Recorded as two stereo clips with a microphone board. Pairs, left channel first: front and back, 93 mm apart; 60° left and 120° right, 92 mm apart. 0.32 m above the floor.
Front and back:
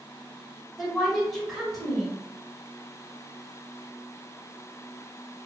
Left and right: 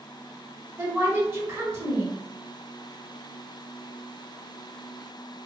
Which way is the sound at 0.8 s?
85° right.